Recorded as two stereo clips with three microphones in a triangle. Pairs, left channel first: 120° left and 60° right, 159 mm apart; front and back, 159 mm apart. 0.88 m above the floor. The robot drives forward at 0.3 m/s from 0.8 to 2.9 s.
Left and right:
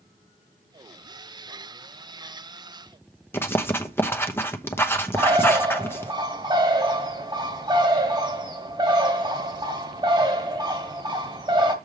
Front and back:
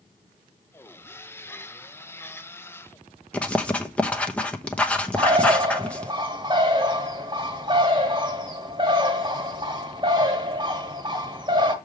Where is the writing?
70° left, 0.9 m.